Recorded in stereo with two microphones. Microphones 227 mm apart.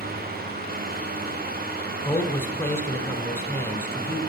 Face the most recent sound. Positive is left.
turn(degrees=10)  # may be behind; listen again after turning